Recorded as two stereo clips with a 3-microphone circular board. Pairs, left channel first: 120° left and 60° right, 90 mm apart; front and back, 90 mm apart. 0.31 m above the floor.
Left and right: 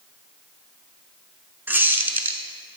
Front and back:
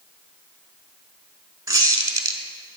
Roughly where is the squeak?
Behind right.